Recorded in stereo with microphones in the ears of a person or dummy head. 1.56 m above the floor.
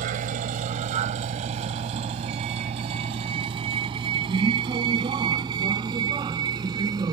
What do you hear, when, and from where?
0.0 s a vehicle: 45° right (ahead or behind); by 7.1 s 20° right (ahead or behind)